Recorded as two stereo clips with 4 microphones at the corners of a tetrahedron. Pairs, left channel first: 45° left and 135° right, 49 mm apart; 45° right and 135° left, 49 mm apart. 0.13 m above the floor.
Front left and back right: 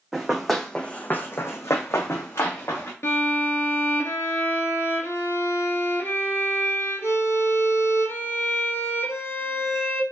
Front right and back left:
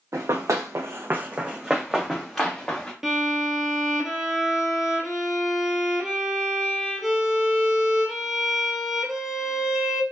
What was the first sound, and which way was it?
Running footsteps, 145° left.